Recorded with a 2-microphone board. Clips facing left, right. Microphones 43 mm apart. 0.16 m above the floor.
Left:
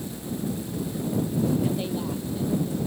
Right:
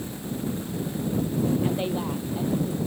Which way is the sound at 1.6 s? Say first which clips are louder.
Right 1 dB; 25° right (ahead or behind).